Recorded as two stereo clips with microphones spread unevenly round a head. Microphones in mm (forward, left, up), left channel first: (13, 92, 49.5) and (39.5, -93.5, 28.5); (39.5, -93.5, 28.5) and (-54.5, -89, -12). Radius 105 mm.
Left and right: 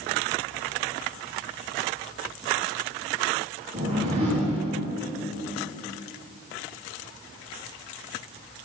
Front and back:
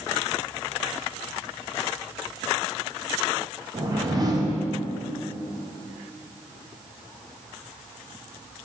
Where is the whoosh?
140° right, 1.5 m.